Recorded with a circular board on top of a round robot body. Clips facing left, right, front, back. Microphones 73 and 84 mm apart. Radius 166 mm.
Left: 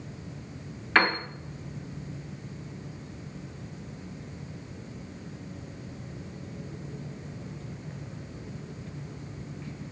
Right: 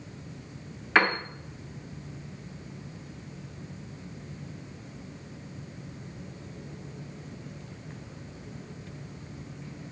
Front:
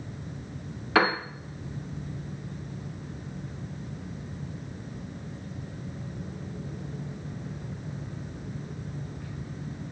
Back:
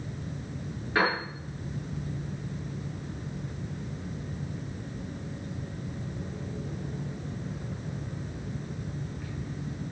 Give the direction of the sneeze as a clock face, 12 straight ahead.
No sneeze in this recording.